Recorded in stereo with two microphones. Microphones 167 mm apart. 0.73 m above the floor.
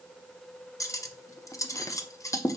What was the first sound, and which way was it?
Cutlery clinking, 20° left (ahead or behind).